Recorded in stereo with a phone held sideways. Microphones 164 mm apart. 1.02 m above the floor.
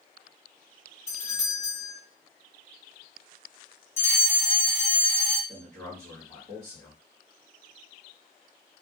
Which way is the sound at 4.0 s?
15° left (ahead or behind).